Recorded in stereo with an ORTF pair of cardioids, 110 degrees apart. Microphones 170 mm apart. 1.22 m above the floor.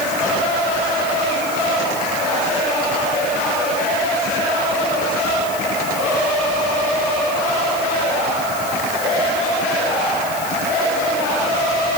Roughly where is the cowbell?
I don't hear a cowbell.